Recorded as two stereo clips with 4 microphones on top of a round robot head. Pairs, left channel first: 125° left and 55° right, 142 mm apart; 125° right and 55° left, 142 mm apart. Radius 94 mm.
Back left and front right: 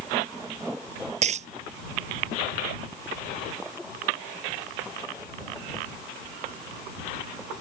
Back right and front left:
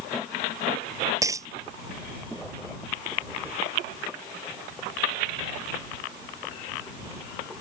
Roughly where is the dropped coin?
Ahead.